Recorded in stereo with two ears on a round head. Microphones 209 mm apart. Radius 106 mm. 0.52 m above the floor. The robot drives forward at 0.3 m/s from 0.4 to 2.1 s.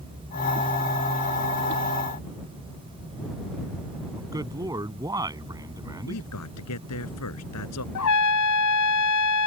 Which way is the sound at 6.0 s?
75° left (ahead or behind).